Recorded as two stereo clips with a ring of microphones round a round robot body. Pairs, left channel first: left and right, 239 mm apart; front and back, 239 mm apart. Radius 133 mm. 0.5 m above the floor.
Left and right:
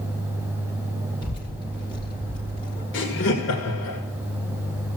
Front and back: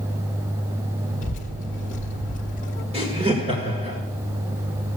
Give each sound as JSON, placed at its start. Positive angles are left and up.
{"t": 1.2, "sound": "a child speaking", "azimuth_deg": 30, "distance_m": 1.0}
{"t": 2.9, "sound": "laughter", "azimuth_deg": 115, "distance_m": 2.0}